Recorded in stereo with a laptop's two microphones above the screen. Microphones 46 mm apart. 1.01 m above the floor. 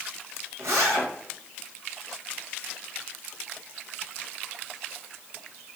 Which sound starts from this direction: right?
A zipper, at 0.6 s.